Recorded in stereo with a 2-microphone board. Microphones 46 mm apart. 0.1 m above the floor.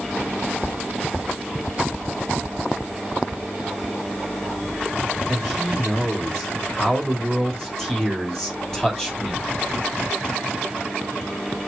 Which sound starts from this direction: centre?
A man speaking, at 5.3 s.